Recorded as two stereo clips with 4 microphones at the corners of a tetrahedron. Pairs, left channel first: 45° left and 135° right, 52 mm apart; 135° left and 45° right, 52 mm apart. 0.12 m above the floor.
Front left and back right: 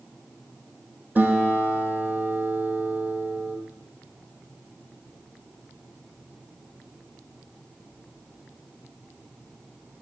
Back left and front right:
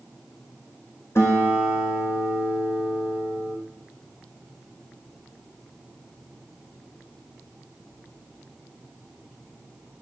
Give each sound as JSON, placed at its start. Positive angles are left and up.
{"t": 1.1, "sound": "a guitar", "azimuth_deg": 170, "distance_m": 3.5}